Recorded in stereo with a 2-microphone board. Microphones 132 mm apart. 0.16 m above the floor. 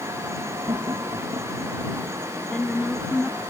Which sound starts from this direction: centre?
A woman speaking, at 2.5 s.